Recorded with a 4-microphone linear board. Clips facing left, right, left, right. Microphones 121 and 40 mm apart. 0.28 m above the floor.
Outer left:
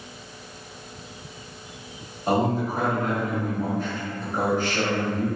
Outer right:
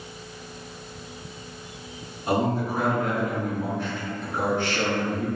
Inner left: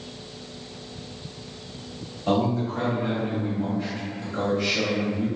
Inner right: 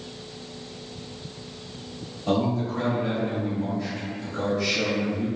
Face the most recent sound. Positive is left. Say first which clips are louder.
# outer left 1 dB, inner left 1 dB
turn(degrees=45)  # may be behind; listen again after turning